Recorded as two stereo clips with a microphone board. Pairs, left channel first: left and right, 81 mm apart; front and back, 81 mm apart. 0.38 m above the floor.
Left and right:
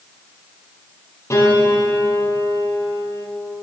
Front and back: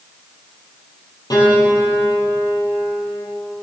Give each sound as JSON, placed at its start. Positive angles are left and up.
{"t": 1.3, "sound": "a piano", "azimuth_deg": 35, "distance_m": 4.5}